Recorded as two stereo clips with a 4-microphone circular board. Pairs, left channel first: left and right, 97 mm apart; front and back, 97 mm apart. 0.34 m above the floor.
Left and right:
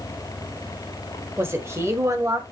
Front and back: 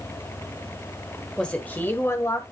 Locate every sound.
1.4 s a woman speaking: 75° right, 1.3 m; by 2.4 s 45° right, 1.7 m